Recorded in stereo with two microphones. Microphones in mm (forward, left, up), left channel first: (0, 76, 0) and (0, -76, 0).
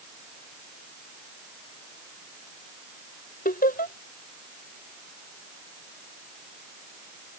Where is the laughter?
75° left (ahead or behind).